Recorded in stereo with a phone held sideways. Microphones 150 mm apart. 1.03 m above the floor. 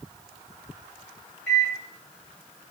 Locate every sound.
1.5 s a microwave: 15° left (ahead or behind), 1.3 m